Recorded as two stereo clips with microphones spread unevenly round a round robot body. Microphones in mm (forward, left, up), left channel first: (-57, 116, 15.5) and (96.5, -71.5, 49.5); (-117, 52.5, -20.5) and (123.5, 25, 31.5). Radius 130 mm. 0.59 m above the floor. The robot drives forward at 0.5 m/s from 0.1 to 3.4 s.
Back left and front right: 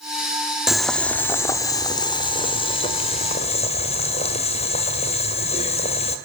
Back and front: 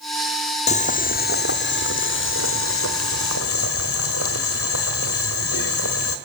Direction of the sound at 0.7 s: 145° right.